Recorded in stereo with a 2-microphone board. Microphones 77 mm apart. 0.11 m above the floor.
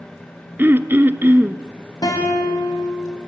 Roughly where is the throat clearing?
Right.